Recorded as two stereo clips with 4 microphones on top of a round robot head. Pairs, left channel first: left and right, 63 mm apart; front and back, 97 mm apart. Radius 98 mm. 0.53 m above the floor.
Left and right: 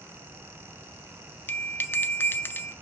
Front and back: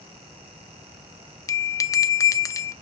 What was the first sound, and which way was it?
A bell, 45° left.